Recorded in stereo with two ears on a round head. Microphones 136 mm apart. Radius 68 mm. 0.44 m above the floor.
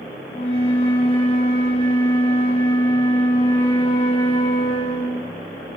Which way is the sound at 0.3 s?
45° left (ahead or behind).